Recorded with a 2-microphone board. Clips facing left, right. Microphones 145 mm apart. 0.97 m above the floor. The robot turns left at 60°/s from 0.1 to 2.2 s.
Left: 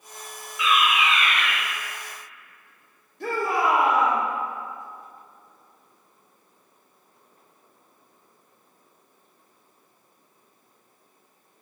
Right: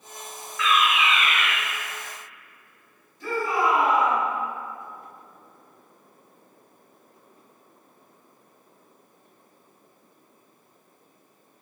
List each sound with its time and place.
0.6 s a fire alarm: 30° left, 1.3 m; by 1.5 s 25° right, 1.3 m
3.2 s a shout: 65° left (ahead or behind), 2.5 m